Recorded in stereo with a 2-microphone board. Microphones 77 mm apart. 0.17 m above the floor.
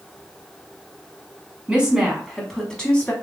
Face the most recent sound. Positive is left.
turn(degrees=20)  # may be behind; listen again after turning